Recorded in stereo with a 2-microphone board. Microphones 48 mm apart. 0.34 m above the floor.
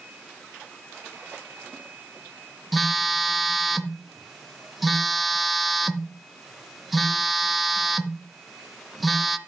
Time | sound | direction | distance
2.7 | a phone buzzing | 5° right (ahead or behind) | 0.7 m